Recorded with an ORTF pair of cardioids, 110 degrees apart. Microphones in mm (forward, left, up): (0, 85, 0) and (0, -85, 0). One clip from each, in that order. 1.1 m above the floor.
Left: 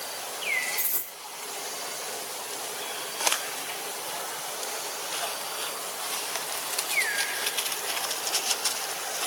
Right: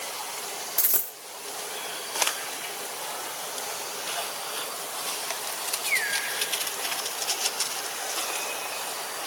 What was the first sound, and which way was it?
A dropped coin, 40° right.